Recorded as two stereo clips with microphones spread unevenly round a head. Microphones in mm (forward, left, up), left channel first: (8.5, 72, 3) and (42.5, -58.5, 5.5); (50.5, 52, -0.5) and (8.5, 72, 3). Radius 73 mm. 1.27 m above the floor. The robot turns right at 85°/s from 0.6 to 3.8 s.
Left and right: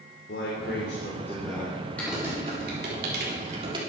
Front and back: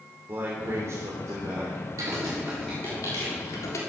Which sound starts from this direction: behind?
Typing on a keyboard, at 2.0 s.